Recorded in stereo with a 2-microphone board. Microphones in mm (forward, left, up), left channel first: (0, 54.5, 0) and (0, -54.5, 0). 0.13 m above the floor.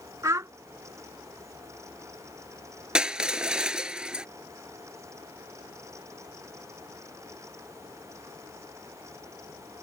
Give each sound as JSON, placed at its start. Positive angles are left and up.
{"t": 0.2, "sound": "a child speaking", "side_deg": -30}
{"t": 3.0, "sound": "crushing", "side_deg": -10}